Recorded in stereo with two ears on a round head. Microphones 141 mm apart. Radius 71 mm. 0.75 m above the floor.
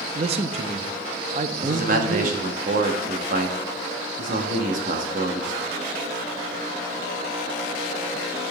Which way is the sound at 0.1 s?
40° right (ahead or behind).